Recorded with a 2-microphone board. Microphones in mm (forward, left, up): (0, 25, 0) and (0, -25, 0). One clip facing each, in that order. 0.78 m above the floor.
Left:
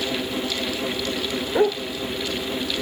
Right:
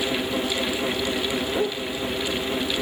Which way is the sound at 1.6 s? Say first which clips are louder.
Left 9 dB; 45° left (ahead or behind).